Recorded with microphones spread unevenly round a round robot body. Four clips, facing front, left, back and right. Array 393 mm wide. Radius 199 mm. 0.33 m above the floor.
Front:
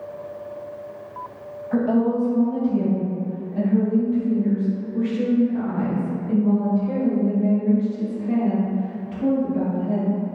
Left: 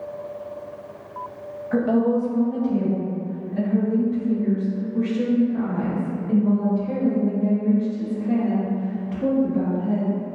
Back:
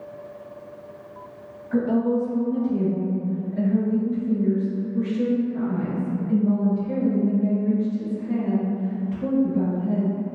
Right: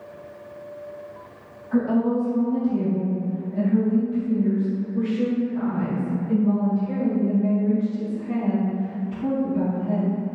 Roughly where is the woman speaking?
Ahead left.